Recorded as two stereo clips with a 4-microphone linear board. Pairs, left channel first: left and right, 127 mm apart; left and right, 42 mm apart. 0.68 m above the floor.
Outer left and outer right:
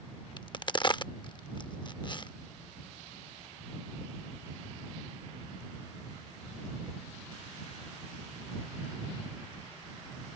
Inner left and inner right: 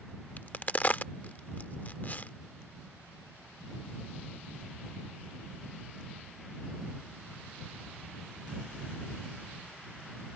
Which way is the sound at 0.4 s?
40° left (ahead or behind).